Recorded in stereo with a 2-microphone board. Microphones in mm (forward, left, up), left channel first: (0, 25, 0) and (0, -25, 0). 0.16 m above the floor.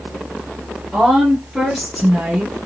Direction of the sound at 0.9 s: 10° left (ahead or behind).